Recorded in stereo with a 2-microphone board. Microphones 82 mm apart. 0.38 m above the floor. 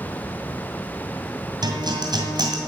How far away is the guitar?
About 2 m.